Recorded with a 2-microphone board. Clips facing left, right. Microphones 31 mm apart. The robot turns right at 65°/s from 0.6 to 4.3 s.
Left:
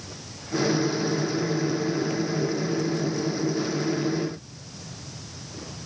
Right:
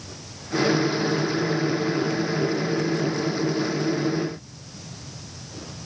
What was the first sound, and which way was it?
Only background noise.